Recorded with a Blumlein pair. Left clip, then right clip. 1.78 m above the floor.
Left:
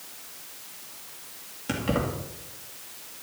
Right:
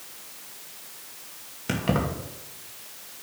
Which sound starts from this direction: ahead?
Keys jangling, at 1.7 s.